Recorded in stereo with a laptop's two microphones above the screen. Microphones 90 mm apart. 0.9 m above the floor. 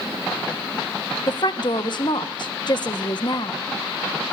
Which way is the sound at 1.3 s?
50° left (ahead or behind).